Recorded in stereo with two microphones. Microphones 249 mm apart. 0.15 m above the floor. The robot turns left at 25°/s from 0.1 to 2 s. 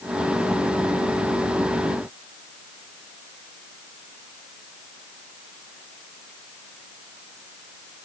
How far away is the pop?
No pop in this recording.